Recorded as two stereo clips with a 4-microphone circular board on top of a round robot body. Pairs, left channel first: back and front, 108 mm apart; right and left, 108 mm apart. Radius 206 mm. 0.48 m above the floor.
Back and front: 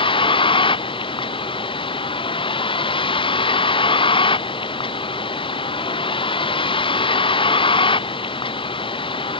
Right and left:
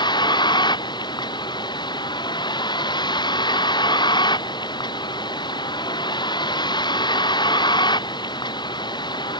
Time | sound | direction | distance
0.0 | a vehicle | 140° right | ?